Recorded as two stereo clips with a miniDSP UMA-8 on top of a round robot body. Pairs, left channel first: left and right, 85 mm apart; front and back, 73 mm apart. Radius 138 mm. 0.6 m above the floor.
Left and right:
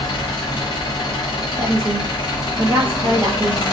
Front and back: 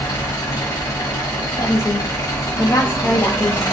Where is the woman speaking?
40° right, 0.8 m.